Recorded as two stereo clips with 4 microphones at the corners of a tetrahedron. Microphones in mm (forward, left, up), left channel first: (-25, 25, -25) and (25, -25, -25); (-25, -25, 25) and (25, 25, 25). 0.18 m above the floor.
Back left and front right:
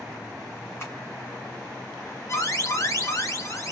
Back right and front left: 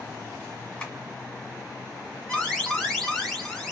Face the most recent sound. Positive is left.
turn(degrees=140)